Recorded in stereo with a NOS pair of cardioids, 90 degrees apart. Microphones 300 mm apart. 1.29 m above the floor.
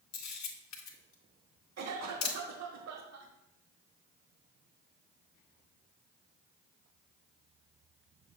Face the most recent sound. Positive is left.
turn(degrees=-60)